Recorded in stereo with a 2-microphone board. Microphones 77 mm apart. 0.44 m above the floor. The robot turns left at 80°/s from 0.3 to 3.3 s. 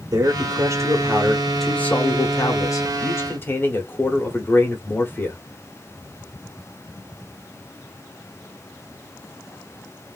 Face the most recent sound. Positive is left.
turn(degrees=40)